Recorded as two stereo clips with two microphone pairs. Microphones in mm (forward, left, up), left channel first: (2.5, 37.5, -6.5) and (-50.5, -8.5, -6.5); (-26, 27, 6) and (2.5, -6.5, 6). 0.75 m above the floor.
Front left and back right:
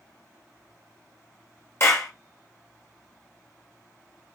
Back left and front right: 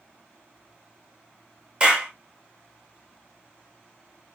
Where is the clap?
10° left, 0.7 m.